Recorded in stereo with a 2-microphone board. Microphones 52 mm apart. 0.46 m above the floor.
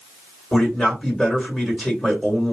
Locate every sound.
0.5 s a man speaking: 5° left (ahead or behind), 1.9 m